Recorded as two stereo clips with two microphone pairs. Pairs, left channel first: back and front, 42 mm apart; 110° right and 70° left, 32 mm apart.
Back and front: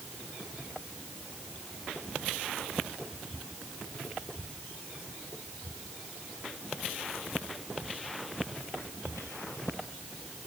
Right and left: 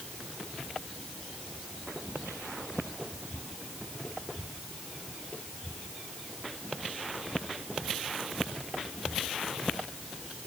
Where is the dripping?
No dripping in this recording.